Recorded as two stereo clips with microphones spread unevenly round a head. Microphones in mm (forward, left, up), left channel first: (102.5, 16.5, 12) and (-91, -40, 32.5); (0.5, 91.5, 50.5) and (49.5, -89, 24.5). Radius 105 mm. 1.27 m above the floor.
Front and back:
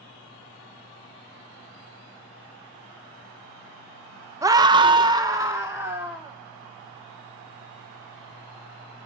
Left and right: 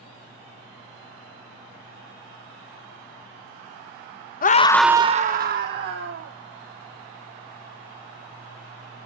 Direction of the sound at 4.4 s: 120° left.